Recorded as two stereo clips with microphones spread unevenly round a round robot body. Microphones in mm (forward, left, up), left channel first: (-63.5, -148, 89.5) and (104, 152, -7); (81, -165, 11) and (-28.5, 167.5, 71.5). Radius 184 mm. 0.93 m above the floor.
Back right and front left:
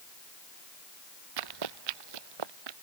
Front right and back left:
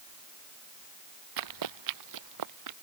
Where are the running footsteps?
85° left; by 2.7 s 70° left.